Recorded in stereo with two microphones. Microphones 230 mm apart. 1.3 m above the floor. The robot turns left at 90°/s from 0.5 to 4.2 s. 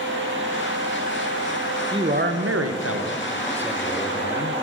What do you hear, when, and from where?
1.9 s a man speaking: 20° right, 0.8 m; by 4.6 s 135° left, 0.8 m